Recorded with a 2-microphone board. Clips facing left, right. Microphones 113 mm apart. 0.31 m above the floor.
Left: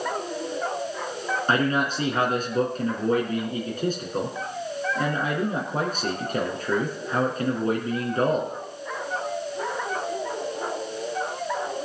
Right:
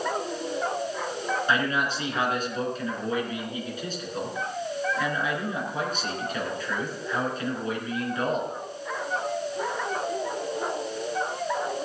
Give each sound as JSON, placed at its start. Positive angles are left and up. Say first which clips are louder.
{"t": 1.5, "sound": "a man speaking", "louder": "left 5 dB", "side_deg": 45, "distance_m": 4.0}